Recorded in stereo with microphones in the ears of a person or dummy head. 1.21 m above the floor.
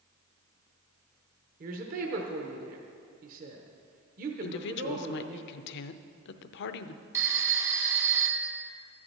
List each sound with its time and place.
1.6 s a woman speaking: 50° right (ahead or behind), 1.0 m
4.4 s a woman speaking: 65° left (ahead or behind), 0.6 m
7.1 s a phone ringing: 20° right (ahead or behind), 0.9 m